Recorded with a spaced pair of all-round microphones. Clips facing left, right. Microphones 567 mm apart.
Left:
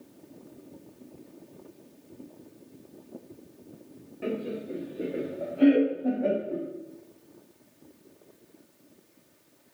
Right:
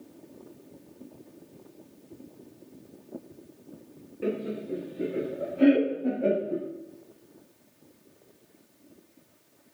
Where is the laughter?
10° left (ahead or behind), 0.7 m; by 6.6 s 50° right (ahead or behind), 2 m.